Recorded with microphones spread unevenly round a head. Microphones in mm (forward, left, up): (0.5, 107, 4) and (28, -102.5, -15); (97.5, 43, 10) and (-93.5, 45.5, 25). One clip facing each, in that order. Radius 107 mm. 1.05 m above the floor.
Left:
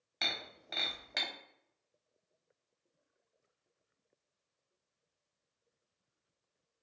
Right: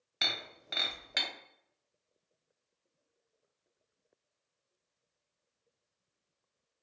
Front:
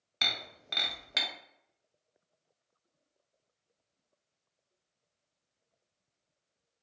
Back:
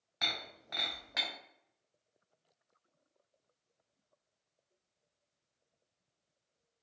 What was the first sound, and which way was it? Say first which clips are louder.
Breaking glass: right 1 dB, front 1 dB; straight ahead.